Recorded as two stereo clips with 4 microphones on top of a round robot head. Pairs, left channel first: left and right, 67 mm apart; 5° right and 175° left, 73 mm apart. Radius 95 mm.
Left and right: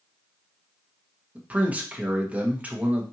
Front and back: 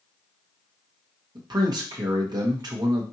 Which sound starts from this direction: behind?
A man speaking, at 1.4 s.